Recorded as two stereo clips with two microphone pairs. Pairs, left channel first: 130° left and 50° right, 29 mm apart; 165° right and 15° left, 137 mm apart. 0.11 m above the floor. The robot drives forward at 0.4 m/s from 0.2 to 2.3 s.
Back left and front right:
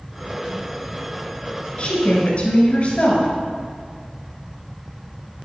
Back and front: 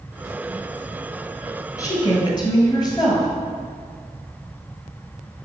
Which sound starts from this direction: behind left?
A woman speaking, at 1.8 s.